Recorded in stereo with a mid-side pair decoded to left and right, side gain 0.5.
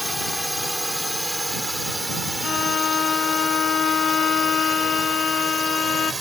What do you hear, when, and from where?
0.0 s a drone: 5° left; by 6.2 s 20° right
2.4 s a violin: 50° left